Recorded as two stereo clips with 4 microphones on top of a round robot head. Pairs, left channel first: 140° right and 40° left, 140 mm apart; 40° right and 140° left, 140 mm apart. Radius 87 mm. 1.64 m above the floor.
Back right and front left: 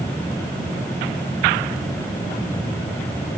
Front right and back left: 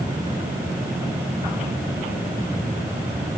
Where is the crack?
No crack in this recording.